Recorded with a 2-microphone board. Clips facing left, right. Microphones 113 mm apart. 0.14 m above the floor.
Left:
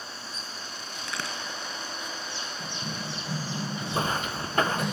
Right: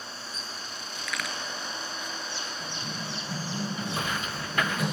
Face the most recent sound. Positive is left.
turn(degrees=35)  # may be behind; listen again after turning